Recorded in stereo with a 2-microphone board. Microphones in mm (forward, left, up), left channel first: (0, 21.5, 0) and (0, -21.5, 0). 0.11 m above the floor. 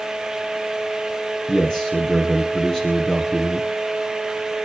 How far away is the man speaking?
About 1.9 m.